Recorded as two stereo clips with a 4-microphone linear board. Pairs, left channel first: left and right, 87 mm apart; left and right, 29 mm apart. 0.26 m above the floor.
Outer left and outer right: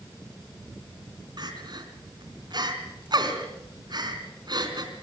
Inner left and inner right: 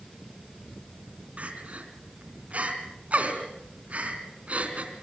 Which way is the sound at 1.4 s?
55° right (ahead or behind).